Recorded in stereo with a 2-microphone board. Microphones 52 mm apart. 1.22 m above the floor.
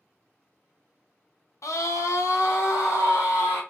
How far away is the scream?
About 0.7 m.